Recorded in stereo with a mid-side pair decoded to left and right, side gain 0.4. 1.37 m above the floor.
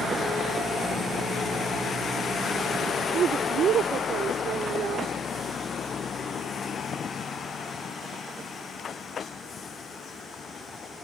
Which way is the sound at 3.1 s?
70° right.